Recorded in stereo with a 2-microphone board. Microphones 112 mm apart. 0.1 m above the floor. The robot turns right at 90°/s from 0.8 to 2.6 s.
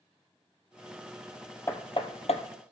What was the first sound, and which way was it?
Hammering, 20° left (ahead or behind).